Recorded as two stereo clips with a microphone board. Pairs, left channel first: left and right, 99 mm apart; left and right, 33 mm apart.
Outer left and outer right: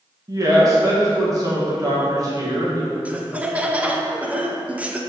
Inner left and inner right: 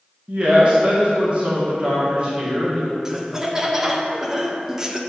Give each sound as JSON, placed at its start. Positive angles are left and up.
{"t": 0.3, "sound": "a woman speaking", "side_deg": -35, "distance_m": 1.4}
{"t": 3.0, "sound": "laughter", "side_deg": -15, "distance_m": 0.5}